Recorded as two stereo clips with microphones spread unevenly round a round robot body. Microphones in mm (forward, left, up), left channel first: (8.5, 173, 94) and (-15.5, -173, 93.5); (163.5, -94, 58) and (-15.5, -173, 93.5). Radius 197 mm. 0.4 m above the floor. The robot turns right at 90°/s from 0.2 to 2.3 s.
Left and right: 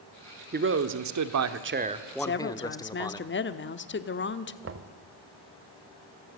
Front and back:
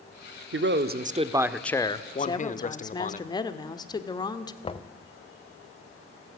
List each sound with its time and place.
0.5 s a man speaking: 150° right, 1.2 m; by 3.2 s 10° left, 1.2 m
2.2 s a woman speaking: 45° left, 1.1 m; by 4.5 s 55° left, 1.1 m
4.6 s knocking: 40° right, 1.3 m